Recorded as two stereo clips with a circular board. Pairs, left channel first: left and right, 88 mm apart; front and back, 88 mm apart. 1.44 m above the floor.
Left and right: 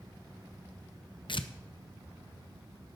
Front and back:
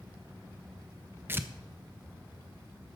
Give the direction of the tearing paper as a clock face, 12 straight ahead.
8 o'clock.